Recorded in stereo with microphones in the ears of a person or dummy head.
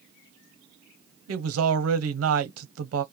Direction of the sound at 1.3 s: 80° right.